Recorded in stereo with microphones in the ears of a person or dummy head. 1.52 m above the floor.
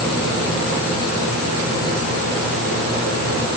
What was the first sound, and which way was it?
Only background noise.